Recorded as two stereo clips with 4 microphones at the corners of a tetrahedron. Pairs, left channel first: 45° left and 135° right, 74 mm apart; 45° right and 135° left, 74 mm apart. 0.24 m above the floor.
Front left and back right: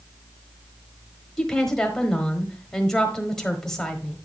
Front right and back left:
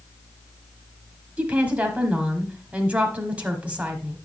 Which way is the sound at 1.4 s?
120° left.